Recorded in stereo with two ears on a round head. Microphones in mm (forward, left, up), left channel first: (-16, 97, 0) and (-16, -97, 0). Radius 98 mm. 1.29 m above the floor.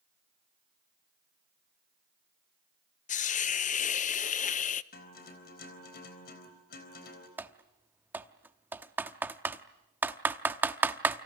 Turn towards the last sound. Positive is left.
turn(degrees=-10)  # may be behind; listen again after turning